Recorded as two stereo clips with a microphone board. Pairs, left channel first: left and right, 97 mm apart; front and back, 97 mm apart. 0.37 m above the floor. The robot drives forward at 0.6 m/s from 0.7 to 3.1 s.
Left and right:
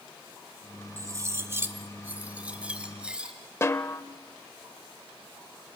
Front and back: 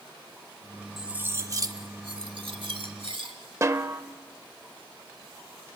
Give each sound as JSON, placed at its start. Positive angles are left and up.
{"t": 1.0, "sound": "cutlery clinking", "azimuth_deg": -95, "distance_m": 0.5}
{"t": 3.6, "sound": "a snare drum", "azimuth_deg": 135, "distance_m": 0.7}